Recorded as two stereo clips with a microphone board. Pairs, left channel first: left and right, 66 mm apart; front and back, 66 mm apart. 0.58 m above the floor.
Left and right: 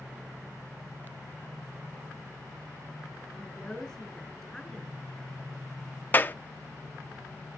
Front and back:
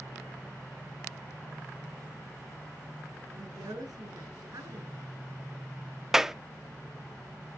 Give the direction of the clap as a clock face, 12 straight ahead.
9 o'clock.